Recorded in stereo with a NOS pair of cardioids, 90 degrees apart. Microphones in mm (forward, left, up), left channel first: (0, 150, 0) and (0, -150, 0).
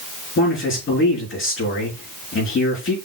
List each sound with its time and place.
0.4 s a man speaking: 45° left, 4.5 m